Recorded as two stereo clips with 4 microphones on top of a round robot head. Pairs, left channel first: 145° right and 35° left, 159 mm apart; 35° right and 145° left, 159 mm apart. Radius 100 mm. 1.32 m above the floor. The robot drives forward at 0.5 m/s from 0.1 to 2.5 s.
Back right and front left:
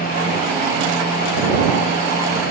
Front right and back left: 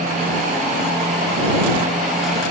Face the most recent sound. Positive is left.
No sound to turn to.